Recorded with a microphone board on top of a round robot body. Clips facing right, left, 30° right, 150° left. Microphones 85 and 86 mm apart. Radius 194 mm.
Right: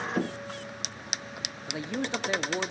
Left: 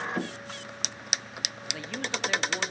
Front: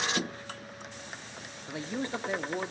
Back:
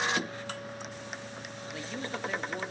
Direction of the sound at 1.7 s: 60° right.